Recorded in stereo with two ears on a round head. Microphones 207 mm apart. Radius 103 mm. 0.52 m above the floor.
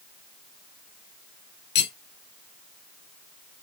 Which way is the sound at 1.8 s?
50° left (ahead or behind).